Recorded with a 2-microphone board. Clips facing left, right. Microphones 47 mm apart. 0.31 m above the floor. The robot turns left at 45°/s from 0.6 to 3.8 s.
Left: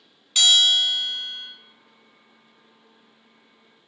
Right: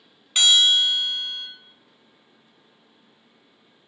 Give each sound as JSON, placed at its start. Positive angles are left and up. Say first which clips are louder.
{"t": 0.3, "sound": "a bell", "louder": "right 1 dB", "azimuth_deg": -25, "distance_m": 0.5}